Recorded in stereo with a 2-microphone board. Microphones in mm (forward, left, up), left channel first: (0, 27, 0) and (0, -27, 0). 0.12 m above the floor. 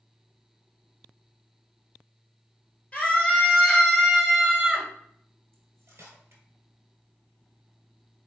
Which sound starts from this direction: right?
Cutlery clinking, at 5.5 s.